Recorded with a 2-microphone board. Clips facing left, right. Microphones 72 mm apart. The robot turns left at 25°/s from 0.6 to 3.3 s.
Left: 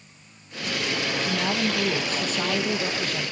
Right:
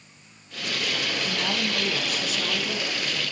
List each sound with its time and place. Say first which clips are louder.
1.2 s a woman speaking: left 4 dB; 170° left, 2.0 m; by 3.3 s 120° left, 2.0 m